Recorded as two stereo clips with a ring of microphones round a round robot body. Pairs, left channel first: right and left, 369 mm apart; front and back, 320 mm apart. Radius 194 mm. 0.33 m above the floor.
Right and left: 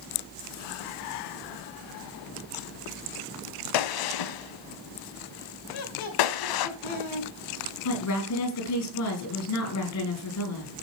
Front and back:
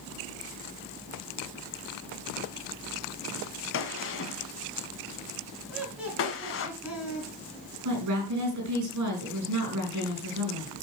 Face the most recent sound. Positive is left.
turn(degrees=-135)